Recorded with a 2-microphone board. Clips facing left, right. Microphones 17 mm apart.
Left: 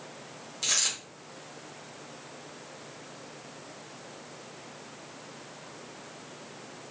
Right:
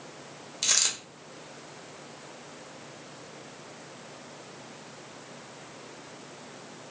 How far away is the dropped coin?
About 0.8 m.